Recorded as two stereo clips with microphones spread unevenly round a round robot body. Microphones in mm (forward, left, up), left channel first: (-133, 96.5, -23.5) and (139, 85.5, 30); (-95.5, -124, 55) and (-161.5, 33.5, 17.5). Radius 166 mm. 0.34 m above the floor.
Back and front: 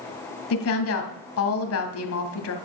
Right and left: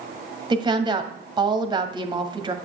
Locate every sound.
0.5 s a woman speaking: 170° left, 1.8 m